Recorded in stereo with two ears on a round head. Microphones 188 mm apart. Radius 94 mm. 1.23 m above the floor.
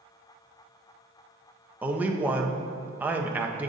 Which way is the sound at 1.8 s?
10° right (ahead or behind).